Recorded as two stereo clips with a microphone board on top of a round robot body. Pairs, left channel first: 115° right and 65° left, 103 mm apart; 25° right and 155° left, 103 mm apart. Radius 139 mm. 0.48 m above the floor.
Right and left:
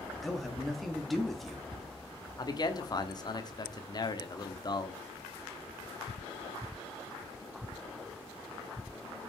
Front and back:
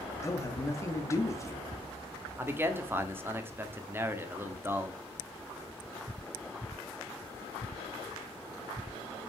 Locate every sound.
0.2 s a man speaking: 25° right, 1.4 m
2.4 s a man speaking: 140° right, 1.6 m